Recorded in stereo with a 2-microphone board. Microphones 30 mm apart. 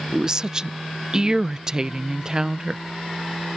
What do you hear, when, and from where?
0.1 s a woman speaking: 25° right (ahead or behind)